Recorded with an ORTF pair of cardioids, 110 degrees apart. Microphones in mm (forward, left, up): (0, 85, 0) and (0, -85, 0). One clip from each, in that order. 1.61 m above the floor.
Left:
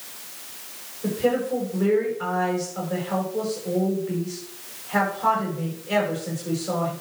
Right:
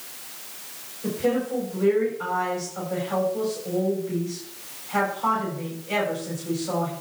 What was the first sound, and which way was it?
A woman speaking, 15° left.